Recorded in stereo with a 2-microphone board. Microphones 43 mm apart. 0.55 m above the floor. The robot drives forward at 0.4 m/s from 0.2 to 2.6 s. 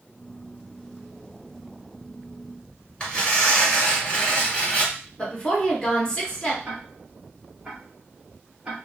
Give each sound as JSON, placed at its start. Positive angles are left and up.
{"t": 3.0, "sound": "tearing paper", "side_deg": 20, "distance_m": 1.6}
{"t": 5.2, "sound": "a woman speaking", "side_deg": 20, "distance_m": 1.2}
{"t": 6.7, "sound": "ticking", "side_deg": -10, "distance_m": 1.3}